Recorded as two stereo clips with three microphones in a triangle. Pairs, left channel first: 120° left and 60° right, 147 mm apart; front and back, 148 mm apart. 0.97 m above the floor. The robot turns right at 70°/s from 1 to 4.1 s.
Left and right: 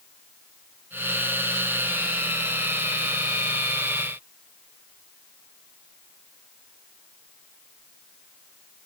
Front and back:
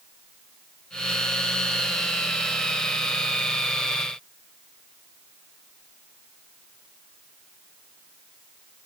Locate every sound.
Only background noise.